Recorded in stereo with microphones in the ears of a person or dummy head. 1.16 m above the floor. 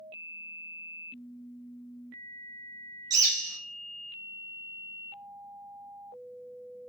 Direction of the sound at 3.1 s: 25° right (ahead or behind).